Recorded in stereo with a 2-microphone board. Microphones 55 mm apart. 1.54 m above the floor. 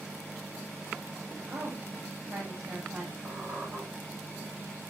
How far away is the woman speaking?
About 1.1 m.